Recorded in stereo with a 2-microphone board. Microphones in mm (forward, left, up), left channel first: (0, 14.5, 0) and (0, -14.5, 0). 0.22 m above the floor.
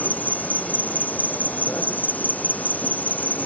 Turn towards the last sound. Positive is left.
turn(degrees=80)